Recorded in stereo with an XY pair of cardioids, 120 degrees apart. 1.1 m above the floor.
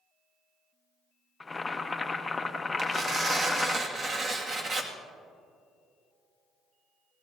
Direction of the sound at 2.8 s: 40° right.